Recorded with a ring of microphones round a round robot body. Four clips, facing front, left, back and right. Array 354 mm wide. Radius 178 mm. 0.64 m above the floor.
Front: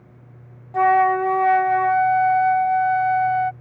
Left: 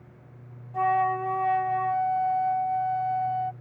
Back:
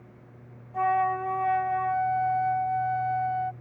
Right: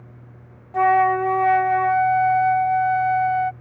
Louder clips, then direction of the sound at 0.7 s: Right 7 dB, front 9 dB; 40° right.